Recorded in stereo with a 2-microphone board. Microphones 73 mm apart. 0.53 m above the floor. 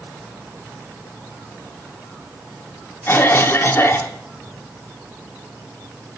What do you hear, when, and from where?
3.1 s a cough: 30° left (ahead or behind), 0.9 m